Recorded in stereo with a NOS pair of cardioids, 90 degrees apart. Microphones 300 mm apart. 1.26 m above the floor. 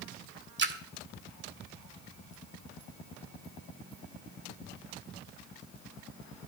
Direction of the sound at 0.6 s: 40° right.